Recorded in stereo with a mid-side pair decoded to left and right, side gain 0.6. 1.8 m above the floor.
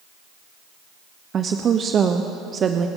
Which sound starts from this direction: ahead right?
A woman speaking, at 1.3 s.